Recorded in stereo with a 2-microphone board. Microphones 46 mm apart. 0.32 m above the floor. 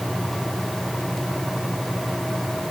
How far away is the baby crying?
No baby crying in this recording.